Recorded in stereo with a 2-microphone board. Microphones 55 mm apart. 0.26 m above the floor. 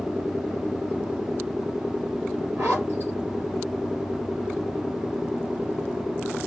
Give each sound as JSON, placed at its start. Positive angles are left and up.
{"t": 2.6, "sound": "a zipper", "side_deg": -40, "distance_m": 3.5}